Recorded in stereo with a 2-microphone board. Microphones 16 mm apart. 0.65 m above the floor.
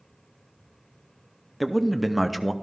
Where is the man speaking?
5° left (ahead or behind), 0.6 m.